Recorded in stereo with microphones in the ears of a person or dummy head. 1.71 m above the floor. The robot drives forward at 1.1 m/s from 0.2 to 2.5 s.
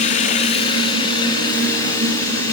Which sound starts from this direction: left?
Running water, at 0.0 s.